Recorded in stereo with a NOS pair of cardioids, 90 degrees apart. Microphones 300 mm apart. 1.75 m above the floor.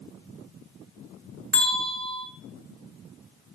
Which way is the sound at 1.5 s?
5° left.